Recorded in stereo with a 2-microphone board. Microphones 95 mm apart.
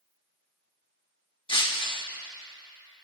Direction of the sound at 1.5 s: 65° left (ahead or behind).